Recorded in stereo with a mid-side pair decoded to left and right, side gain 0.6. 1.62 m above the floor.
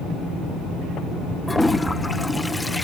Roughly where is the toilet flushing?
Ahead.